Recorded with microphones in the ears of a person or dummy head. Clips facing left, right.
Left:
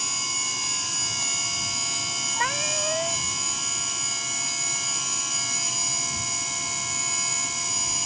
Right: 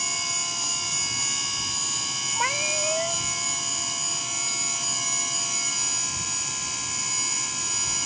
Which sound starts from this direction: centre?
A cat meowing, at 2.4 s.